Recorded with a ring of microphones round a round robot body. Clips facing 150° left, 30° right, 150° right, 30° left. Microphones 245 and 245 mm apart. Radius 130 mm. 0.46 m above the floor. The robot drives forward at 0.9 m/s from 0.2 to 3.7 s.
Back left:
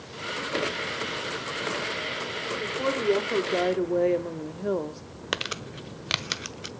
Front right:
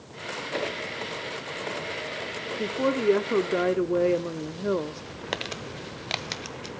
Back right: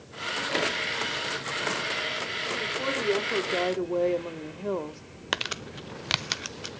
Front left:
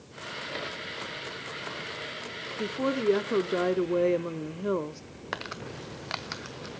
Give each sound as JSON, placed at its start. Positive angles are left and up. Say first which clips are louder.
{"t": 2.6, "sound": "a woman speaking", "louder": "front right 4 dB, front left 5 dB", "azimuth_deg": 5, "distance_m": 1.5}
{"t": 5.3, "sound": "crumpling", "louder": "even, back right 3 dB", "azimuth_deg": -145, "distance_m": 0.7}